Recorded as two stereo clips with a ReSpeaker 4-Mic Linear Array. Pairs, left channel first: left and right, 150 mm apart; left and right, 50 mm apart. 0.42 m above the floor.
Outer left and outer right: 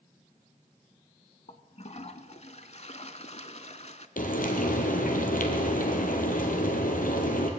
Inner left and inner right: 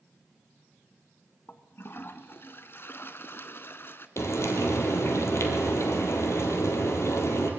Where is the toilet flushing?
50° left (ahead or behind), 0.6 m.